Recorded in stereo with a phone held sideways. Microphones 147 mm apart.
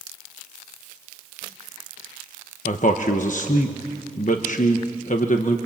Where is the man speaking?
60° left (ahead or behind), 1.1 m.